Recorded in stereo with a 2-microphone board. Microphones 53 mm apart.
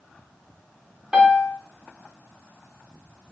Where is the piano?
15° right (ahead or behind), 2.5 m.